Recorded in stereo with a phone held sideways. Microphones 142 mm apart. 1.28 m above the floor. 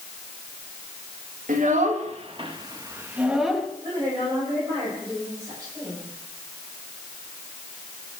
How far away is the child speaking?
About 1.8 m.